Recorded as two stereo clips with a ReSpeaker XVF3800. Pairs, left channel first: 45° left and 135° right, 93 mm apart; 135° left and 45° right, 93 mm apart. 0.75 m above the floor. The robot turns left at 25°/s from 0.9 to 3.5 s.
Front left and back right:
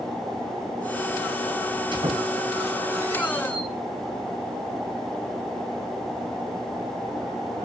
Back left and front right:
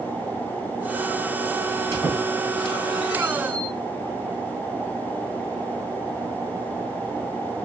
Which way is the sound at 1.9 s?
165° right.